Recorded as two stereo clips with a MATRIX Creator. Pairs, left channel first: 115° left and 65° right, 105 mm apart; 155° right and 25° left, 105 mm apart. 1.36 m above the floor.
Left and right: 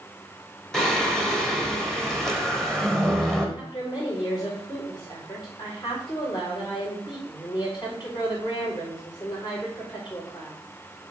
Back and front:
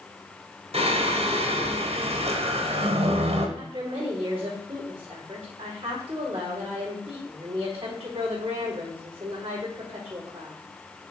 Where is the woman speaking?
65° left, 4.5 m.